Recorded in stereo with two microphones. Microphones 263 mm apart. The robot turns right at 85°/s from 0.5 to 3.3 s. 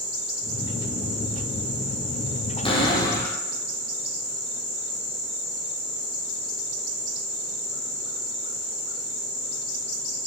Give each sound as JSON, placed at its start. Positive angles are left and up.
{"t": 2.6, "sound": "a cupboard door", "side_deg": 20, "distance_m": 0.6}